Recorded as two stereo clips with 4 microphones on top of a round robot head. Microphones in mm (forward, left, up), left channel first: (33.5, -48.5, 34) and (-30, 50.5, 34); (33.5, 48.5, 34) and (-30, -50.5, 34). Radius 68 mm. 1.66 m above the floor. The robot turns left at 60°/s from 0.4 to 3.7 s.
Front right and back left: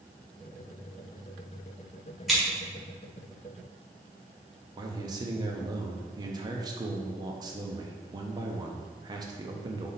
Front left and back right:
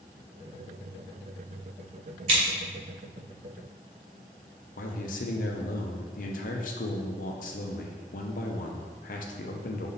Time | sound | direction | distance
2.3 | scissors | 150° right | 1.8 m
4.8 | a man speaking | 65° left | 1.0 m